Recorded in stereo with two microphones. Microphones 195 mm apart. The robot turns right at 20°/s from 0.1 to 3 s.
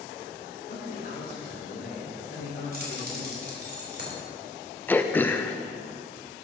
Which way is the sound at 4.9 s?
10° left (ahead or behind).